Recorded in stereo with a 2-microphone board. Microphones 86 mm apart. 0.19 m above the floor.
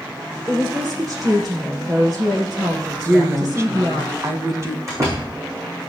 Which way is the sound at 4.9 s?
40° right (ahead or behind).